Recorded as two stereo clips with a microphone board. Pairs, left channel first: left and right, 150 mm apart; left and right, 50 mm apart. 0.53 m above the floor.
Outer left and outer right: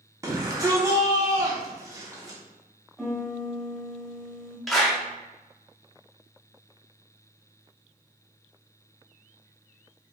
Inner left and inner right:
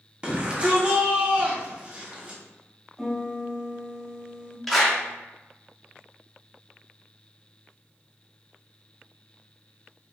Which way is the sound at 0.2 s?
20° right (ahead or behind).